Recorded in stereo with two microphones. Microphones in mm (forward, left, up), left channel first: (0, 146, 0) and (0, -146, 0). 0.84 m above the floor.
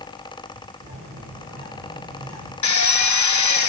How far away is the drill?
About 0.6 m.